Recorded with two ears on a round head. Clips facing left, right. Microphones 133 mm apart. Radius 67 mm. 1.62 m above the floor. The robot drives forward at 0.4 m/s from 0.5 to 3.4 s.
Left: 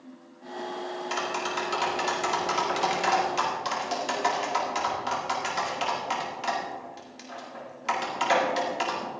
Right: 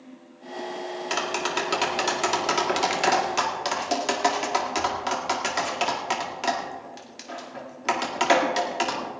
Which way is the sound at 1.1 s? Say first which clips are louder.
Right 3 dB; 60° right (ahead or behind).